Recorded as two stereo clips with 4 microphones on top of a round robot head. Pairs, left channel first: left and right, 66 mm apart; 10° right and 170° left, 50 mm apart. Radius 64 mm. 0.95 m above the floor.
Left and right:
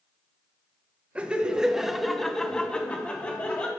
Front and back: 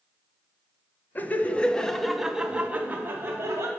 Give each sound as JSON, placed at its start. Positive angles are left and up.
{"t": 1.1, "sound": "laughter", "azimuth_deg": -30, "distance_m": 0.9}